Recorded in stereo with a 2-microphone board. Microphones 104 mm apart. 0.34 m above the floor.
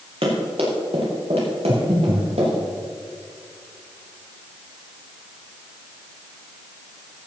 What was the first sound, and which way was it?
Running footsteps, 70° right (ahead or behind).